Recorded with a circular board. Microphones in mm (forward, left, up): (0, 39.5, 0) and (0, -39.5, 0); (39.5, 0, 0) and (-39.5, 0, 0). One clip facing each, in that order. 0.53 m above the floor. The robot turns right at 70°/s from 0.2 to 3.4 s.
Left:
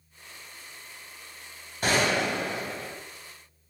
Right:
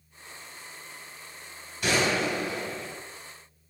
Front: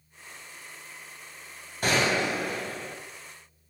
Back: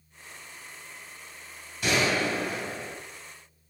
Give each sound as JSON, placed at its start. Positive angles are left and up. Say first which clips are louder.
{"t": 1.8, "sound": "a gunshot", "louder": "left 1 dB, front 1 dB", "azimuth_deg": 45, "distance_m": 2.5}